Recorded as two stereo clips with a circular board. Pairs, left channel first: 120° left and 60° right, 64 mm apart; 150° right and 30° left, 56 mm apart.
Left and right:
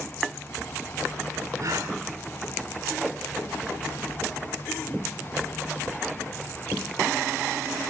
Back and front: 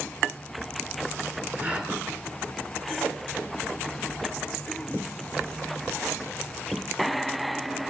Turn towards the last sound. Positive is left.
turn(degrees=-30)